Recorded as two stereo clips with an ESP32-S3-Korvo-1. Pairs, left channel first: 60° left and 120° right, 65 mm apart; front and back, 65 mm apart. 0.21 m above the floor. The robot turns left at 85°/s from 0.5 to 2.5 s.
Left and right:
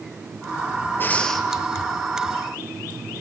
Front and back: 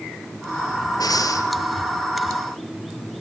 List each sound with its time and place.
1.0 s breathing: 5° left, 3 m; by 1.5 s 35° right, 3 m